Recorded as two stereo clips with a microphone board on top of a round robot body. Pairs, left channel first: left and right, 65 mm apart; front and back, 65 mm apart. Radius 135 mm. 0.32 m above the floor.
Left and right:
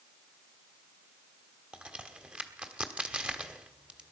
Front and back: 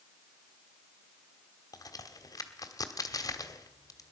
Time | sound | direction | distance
1.7 | a crack | 20° right | 1.3 m